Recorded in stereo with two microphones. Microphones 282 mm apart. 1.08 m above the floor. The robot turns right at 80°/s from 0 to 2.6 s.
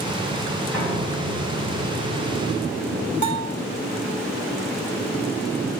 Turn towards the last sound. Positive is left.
turn(degrees=-75)  # may be behind; listen again after turning